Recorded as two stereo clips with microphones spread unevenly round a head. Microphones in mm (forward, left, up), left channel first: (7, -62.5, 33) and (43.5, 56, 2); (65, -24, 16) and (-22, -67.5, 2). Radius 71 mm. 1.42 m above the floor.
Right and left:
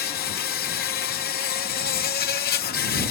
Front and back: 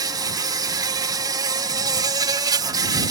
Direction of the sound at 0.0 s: 110° right.